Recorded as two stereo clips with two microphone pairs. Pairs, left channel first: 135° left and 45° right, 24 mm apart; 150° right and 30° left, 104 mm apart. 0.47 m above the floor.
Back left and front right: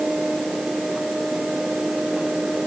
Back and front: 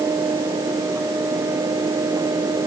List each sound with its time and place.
Only background noise.